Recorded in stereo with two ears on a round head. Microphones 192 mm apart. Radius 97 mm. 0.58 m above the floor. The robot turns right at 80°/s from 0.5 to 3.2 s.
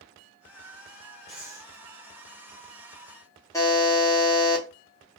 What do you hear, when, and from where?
1.3 s breathing: straight behind, 0.9 m; by 1.7 s 145° right, 0.9 m
3.5 s a buzzer: 15° left (ahead or behind), 0.9 m